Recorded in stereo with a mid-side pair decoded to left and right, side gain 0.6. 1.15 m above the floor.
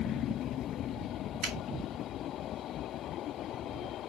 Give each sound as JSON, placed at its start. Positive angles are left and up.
{"t": 1.4, "sound": "a finger snap", "azimuth_deg": -60, "distance_m": 2.0}